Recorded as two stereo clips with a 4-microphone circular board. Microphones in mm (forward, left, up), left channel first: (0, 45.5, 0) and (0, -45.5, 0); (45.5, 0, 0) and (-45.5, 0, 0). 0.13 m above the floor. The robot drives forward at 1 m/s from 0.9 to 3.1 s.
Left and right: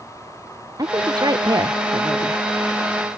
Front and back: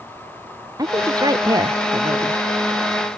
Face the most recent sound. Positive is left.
turn(degrees=-140)